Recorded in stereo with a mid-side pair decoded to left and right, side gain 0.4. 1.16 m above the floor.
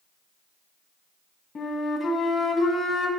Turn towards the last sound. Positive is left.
turn(degrees=55)